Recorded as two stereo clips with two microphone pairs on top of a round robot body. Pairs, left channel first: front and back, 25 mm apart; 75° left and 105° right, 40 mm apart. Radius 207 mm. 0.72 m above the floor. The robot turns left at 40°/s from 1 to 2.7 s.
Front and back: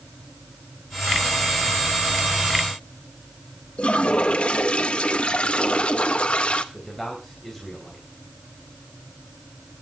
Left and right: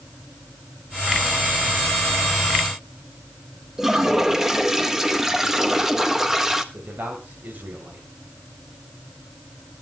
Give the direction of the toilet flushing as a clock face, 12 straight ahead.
1 o'clock.